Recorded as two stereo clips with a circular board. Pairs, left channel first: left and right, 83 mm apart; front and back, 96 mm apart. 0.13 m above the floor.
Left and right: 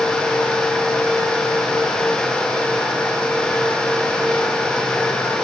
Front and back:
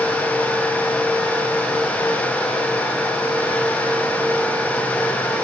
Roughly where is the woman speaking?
I don't hear a woman speaking.